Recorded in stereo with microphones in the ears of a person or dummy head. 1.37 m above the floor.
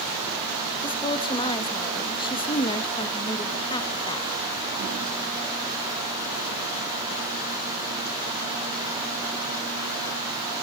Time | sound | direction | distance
0.8 | a woman speaking | 25° left (ahead or behind) | 2 m